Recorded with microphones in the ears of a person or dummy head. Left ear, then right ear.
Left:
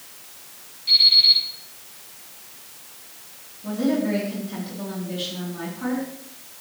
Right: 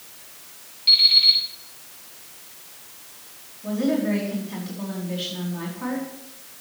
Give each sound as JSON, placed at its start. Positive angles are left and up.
{"t": 0.9, "sound": "an alarm clock", "side_deg": -55, "distance_m": 6.0}
{"t": 3.6, "sound": "a woman speaking", "side_deg": -10, "distance_m": 4.5}